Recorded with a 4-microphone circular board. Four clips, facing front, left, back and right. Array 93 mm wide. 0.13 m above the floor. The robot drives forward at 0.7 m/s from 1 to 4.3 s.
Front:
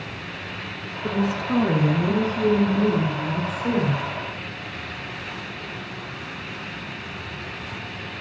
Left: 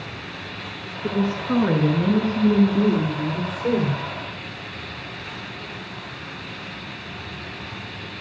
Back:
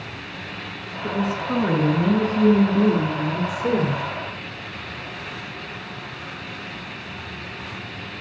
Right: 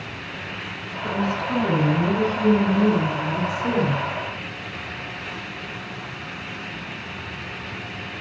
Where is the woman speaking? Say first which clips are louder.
Left 1 dB, even; 100° left, 1.9 m; by 4.0 s 155° left, 3 m.